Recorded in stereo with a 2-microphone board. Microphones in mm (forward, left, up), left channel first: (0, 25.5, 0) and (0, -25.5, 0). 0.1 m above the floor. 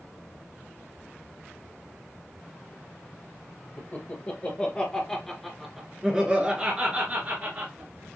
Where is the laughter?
35° left (ahead or behind), 2 m; by 8.2 s 50° right (ahead or behind), 2.5 m.